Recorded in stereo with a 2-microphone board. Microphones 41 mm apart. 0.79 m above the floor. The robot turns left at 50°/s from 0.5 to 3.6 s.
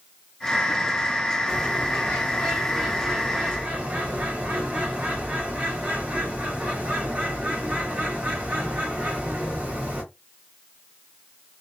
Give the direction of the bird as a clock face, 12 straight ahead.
10 o'clock.